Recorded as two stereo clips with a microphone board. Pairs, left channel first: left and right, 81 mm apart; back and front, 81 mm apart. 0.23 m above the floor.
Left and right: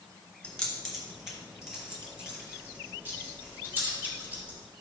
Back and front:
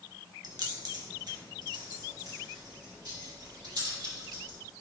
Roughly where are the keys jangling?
Ahead.